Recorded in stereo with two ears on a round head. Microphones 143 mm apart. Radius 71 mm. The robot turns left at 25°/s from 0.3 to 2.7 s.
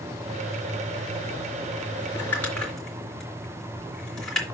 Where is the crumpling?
15° left (ahead or behind), 3 m; by 4.5 s 5° left (ahead or behind), 3 m.